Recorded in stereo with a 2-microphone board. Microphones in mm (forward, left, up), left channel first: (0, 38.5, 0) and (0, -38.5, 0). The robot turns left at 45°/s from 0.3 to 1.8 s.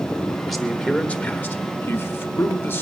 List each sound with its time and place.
0.5 s a man speaking: 175° left, 1.2 m; by 2.8 s 115° left, 1.2 m